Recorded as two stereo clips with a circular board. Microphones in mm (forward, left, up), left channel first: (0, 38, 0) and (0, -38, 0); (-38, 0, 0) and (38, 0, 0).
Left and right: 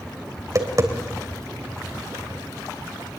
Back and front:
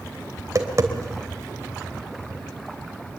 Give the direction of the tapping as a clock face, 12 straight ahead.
2 o'clock.